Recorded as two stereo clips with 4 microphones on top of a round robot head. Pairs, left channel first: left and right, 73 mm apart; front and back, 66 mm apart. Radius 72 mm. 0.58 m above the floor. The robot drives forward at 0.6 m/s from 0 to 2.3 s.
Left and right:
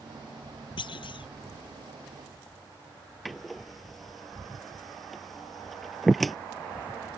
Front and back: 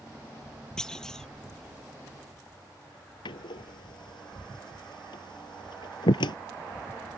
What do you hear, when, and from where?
0.8 s a clunk: 85° left
3.2 s a door slam: straight ahead